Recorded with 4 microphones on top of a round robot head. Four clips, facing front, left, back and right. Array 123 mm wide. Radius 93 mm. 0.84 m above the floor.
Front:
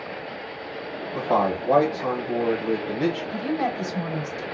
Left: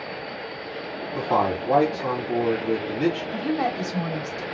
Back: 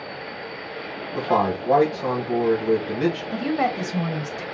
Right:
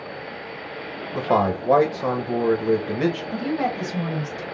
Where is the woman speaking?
175° left, 1.5 m.